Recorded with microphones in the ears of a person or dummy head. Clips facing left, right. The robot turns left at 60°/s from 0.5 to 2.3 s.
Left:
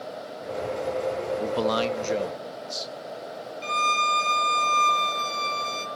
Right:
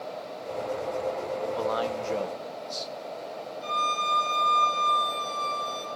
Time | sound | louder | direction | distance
1.4 | a man speaking | left 3 dB | 65° left | 1.1 m
3.6 | a violin | left 4 dB | 40° left (ahead or behind) | 2.5 m